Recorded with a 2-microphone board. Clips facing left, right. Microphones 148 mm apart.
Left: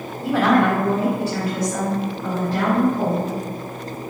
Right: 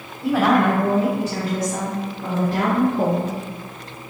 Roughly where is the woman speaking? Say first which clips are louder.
Even; centre.